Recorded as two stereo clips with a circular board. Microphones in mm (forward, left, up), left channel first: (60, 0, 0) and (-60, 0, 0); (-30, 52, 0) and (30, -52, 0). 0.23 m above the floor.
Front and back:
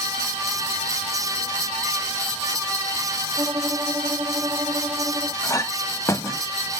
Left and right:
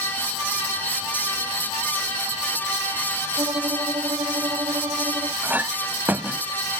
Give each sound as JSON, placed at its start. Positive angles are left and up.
{"t": 3.4, "sound": "a violin", "azimuth_deg": -115}
{"t": 5.4, "sound": "a clink", "azimuth_deg": -5}